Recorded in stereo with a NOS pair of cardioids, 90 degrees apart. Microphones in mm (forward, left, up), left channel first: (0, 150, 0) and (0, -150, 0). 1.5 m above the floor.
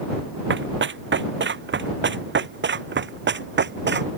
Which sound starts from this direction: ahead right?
Running footsteps, at 0.5 s.